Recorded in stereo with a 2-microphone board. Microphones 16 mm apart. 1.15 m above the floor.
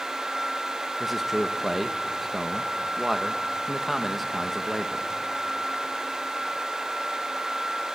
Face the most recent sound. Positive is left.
turn(degrees=-5)  # may be behind; listen again after turning